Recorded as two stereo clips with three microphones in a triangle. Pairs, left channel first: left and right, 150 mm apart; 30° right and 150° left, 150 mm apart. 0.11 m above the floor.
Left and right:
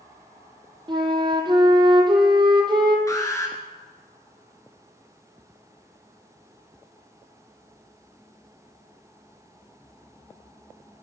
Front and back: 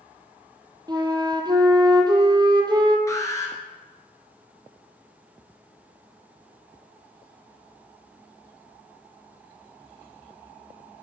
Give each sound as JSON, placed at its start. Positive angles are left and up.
{"t": 0.9, "sound": "a flute", "azimuth_deg": -145, "distance_m": 0.9}
{"t": 3.1, "sound": "an alarm", "azimuth_deg": 30, "distance_m": 1.2}